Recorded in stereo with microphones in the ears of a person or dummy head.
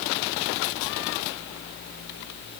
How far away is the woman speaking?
No woman speaking in this recording.